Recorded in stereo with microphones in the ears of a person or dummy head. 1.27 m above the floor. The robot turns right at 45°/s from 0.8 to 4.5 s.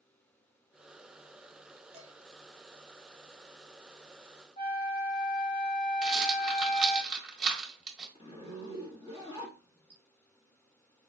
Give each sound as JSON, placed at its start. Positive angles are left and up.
{"t": 1.9, "sound": "dishes clattering", "side_deg": -35, "distance_m": 1.0}
{"t": 4.6, "sound": "a flute", "side_deg": 25, "distance_m": 1.3}
{"t": 6.0, "sound": "a rattle", "side_deg": 0, "distance_m": 1.6}
{"t": 8.2, "sound": "a zipper", "side_deg": 30, "distance_m": 1.4}